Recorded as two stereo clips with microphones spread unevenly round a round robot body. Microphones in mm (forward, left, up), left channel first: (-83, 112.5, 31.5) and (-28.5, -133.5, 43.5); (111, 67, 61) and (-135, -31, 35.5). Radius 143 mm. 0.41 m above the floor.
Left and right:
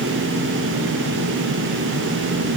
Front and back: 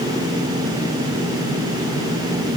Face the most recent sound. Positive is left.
No sound to turn to.